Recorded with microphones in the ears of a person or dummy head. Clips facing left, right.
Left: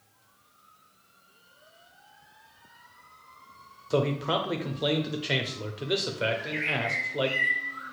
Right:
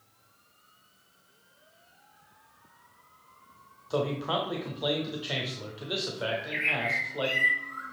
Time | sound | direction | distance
3.9 | a man speaking | 30° left (ahead or behind) | 0.6 m
6.3 | a bird | 65° right (ahead or behind) | 1.9 m